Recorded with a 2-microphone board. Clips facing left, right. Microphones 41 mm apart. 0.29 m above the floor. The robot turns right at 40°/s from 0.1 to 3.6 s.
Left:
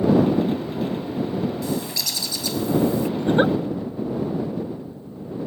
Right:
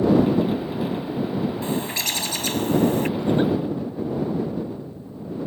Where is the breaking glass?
I don't hear breaking glass.